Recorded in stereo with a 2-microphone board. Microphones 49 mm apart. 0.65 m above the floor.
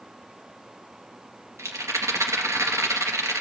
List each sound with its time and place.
1.6 s a rattle: 80° right, 3 m